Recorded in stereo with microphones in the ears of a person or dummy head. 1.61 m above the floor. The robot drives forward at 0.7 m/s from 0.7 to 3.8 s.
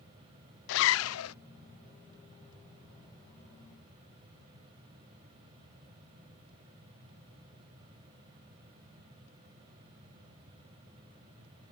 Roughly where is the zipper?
Left.